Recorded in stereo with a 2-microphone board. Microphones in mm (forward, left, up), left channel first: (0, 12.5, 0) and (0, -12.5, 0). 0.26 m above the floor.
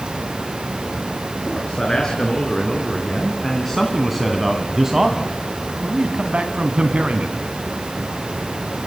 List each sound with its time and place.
1.4 s a man speaking: 25° left (ahead or behind), 3.5 m; by 7.4 s 60° right (ahead or behind), 2 m